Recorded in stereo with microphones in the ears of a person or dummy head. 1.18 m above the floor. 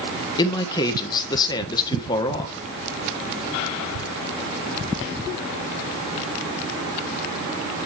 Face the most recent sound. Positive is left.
turn(degrees=20)  # may be behind; listen again after turning